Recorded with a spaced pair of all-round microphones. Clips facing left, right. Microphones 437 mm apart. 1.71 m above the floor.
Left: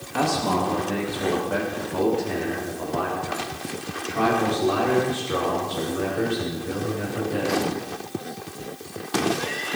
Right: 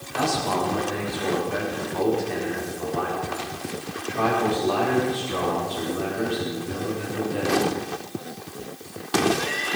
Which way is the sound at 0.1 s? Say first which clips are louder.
Left 2 dB; 70° left (ahead or behind).